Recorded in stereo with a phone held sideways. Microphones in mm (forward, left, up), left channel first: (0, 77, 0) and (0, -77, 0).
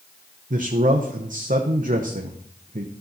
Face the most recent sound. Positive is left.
turn(degrees=-60)  # may be behind; listen again after turning